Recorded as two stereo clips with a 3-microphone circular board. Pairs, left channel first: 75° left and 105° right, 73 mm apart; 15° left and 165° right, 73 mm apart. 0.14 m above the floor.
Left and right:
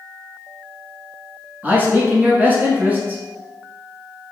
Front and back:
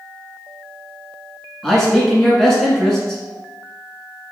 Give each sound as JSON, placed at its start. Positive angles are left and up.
{"t": 1.6, "sound": "a man speaking", "azimuth_deg": -65, "distance_m": 1.2}